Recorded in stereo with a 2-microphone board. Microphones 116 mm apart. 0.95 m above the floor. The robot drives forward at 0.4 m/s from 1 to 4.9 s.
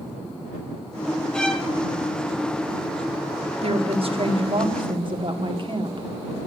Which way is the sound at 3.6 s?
60° right (ahead or behind).